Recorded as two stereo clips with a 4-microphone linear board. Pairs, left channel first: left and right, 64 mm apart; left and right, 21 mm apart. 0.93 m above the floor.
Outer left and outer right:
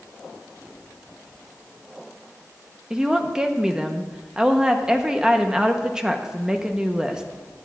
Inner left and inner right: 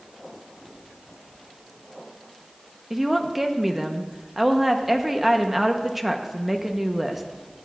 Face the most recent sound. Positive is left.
turn(degrees=-10)  # may be behind; listen again after turning